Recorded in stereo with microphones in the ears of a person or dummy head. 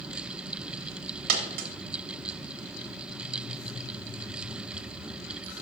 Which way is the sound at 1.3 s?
55° right (ahead or behind).